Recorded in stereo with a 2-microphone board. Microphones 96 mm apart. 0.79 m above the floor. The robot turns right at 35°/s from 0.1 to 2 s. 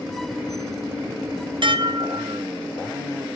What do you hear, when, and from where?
1.6 s dishes clattering: 55° right (ahead or behind), 0.6 m; by 2.4 s 45° right (ahead or behind), 0.6 m